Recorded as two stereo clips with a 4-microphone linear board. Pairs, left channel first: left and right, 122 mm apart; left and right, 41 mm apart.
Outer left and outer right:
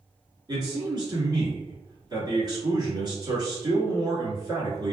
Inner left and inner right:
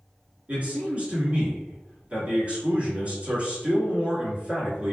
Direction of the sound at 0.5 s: 35° right (ahead or behind).